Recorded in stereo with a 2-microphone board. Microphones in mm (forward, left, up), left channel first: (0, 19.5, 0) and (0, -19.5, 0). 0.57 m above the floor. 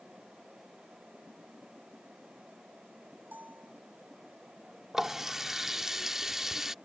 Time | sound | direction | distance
3.3 | a bell | 50° right (ahead or behind) | ?
4.9 | a running tap | 10° right (ahead or behind) | ?